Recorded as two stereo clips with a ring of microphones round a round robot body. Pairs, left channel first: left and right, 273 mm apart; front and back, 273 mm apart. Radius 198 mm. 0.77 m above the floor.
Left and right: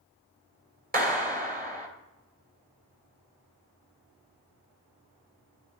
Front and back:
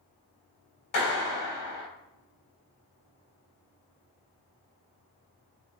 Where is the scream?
I don't hear a scream.